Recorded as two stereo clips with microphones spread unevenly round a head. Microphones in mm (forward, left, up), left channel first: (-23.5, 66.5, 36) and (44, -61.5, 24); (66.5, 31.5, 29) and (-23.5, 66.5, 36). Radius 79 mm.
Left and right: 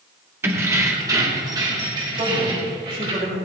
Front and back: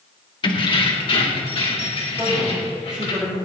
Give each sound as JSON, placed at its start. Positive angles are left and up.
{"t": 0.4, "sound": "keys jangling", "azimuth_deg": 15, "distance_m": 2.0}
{"t": 2.2, "sound": "a man speaking", "azimuth_deg": -115, "distance_m": 5.0}